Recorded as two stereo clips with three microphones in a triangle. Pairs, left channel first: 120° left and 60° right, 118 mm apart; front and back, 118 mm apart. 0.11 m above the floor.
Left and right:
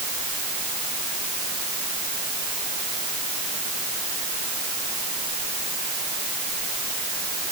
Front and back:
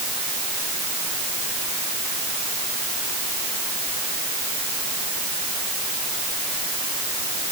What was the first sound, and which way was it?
Only background noise.